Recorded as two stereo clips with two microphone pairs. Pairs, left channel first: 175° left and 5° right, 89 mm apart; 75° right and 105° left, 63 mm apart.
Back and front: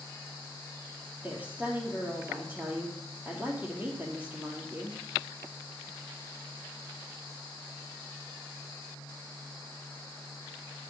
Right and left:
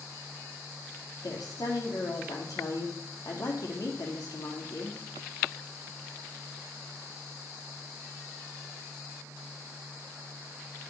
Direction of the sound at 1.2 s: 75° right.